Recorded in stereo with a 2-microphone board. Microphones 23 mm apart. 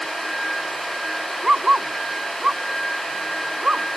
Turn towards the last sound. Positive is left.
turn(degrees=-65)  # may be behind; listen again after turning